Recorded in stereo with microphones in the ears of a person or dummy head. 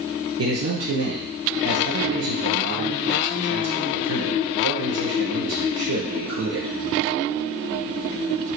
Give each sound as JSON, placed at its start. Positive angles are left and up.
{"t": 0.4, "sound": "a man speaking", "side_deg": -75, "distance_m": 0.9}